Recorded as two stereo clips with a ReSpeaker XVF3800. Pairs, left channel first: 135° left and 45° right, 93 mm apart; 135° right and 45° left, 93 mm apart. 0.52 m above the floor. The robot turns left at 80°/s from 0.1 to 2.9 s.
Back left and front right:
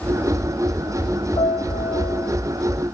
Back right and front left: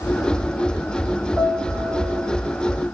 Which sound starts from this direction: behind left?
A piano, at 1.4 s.